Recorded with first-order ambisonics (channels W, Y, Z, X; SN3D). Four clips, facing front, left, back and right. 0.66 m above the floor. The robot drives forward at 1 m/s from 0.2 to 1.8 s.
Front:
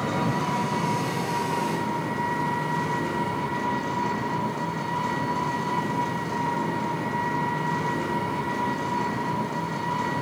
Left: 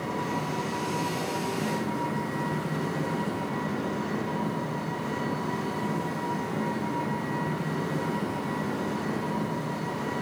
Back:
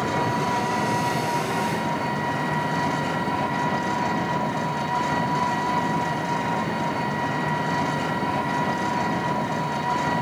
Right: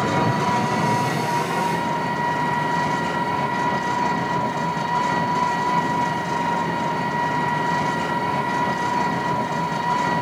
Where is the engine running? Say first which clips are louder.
Right 10 dB, back 2 dB; 115° right, 3 m; by 10.2 s 135° right, 4 m.